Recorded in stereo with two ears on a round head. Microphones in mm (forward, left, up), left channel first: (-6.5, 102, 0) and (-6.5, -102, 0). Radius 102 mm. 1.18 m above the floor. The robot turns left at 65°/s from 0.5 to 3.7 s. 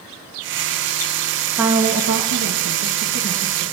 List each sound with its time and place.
1.6 s a woman speaking: 5° right, 1.3 m; by 3.7 s 140° right, 1.3 m